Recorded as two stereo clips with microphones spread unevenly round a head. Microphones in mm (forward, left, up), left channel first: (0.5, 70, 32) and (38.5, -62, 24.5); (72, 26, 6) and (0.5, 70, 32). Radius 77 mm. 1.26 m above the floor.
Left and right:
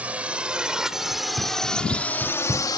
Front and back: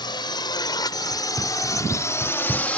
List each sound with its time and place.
0.0 s a drone: 10° left; by 2.8 s 45° left
1.1 s running footsteps: 140° right; by 2.7 s 145° right